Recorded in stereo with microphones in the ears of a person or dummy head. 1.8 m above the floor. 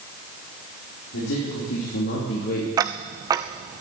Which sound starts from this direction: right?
Ticking, at 2.8 s.